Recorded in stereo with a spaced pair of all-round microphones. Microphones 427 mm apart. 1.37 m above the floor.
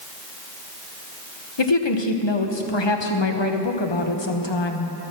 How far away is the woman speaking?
About 1.2 m.